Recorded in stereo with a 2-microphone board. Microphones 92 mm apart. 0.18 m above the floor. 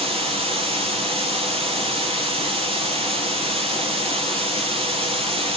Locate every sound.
0.0 s running water: 75° right (ahead or behind), 4.5 m